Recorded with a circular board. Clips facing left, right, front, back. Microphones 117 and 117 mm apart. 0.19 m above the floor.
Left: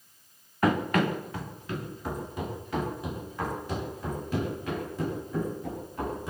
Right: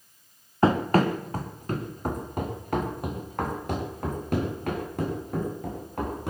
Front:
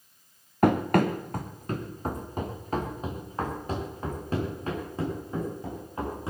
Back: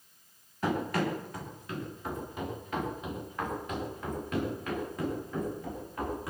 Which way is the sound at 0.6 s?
30° right.